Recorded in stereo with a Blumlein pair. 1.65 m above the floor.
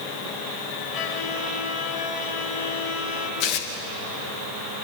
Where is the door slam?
I don't hear a door slam.